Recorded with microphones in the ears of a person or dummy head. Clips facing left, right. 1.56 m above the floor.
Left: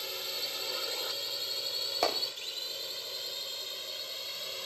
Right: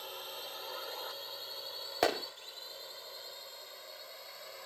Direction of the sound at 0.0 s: 35° left (ahead or behind).